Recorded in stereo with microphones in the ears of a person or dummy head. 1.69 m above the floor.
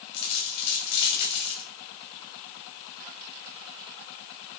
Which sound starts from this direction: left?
A dropped coin, at 0.1 s.